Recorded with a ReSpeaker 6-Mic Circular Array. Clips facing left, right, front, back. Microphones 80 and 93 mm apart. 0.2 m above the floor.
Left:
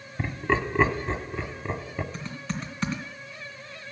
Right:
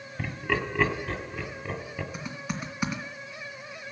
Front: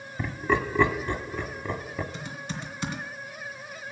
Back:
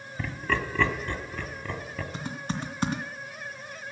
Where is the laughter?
55° left, 1.2 m.